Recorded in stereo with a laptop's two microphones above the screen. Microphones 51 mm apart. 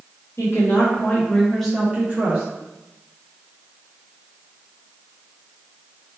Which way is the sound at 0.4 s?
60° left (ahead or behind).